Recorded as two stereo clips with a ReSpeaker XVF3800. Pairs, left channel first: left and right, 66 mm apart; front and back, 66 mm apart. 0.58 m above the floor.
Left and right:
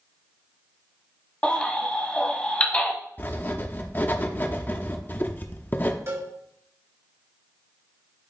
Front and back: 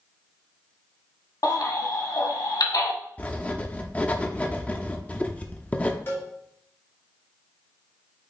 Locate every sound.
1.4 s a baby crying: 20° left, 1.6 m
3.2 s writing: 55° left, 0.8 m
6.1 s a cowbell: 50° right, 2.5 m